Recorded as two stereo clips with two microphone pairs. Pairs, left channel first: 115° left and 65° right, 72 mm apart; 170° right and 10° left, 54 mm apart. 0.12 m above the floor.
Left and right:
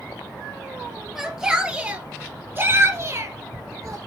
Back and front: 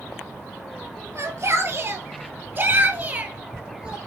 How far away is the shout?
About 2.5 m.